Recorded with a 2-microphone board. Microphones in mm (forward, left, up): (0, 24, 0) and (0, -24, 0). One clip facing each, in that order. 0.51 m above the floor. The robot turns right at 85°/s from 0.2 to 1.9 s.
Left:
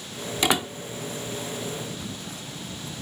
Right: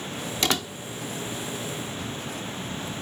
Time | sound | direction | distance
0.4 | a door slam | 15° left (ahead or behind) | ?